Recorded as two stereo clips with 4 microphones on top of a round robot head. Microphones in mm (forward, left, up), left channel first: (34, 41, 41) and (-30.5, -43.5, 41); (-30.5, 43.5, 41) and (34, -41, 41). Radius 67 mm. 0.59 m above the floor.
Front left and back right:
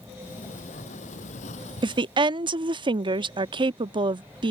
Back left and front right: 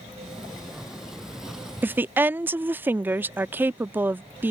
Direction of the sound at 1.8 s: 115° right.